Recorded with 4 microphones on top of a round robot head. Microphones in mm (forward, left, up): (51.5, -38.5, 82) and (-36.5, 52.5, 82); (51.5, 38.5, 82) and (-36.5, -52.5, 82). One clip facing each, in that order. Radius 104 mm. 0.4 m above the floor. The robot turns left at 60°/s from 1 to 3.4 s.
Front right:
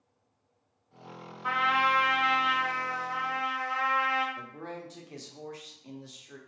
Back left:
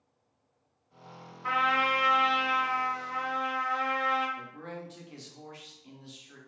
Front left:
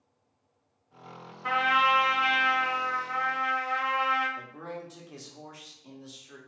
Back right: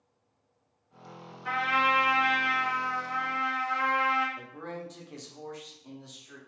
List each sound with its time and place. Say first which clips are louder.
1.4 s a trumpet: front right 1 dB, front left 2 dB; 35° left, 1.6 m; by 4.3 s 80° right, 1.6 m
4.4 s a man speaking: front right 1 dB, even; 35° right, 1.0 m